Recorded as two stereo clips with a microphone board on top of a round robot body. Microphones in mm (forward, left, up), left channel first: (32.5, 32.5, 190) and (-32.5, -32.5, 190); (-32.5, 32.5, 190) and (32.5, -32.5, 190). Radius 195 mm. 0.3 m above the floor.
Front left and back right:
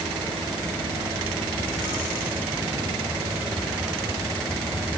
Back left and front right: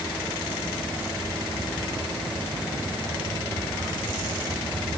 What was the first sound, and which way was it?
Only background noise.